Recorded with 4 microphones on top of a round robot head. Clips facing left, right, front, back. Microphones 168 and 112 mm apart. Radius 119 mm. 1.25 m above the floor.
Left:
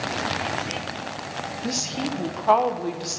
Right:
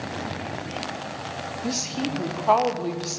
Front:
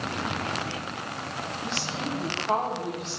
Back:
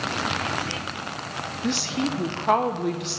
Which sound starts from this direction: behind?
A woman speaking, at 1.6 s.